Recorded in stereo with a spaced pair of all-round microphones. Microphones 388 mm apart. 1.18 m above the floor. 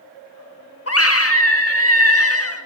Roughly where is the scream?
Left.